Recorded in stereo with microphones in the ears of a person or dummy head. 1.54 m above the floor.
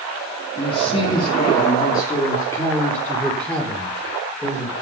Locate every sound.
0.6 s a man speaking: 30° left (ahead or behind), 3 m; by 4.7 s centre (ahead or behind), 5.5 m